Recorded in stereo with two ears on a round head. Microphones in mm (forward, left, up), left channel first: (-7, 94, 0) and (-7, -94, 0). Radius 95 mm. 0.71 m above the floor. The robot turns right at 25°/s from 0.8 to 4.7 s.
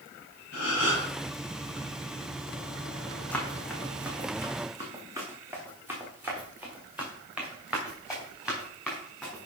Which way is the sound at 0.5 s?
65° left (ahead or behind).